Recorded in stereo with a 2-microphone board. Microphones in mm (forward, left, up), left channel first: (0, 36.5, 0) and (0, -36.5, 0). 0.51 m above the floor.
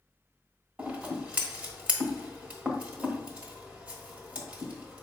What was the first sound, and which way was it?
Scissors, 20° right (ahead or behind).